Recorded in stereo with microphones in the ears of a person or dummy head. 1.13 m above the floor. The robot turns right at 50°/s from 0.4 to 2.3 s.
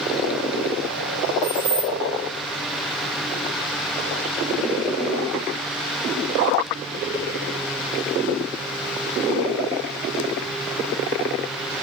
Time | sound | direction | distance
1.4 | keys jangling | 15° left (ahead or behind) | 4.5 m